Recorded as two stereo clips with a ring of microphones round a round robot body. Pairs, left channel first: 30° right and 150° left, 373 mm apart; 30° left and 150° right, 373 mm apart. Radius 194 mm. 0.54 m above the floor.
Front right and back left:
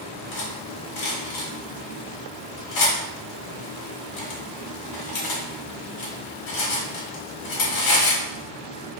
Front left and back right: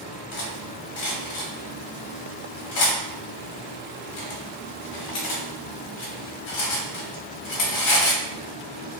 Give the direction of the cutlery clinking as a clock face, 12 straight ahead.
12 o'clock.